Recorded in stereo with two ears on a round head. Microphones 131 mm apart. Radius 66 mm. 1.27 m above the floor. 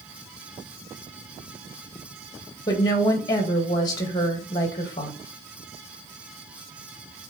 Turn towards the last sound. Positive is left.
turn(degrees=25)  # may be behind; listen again after turning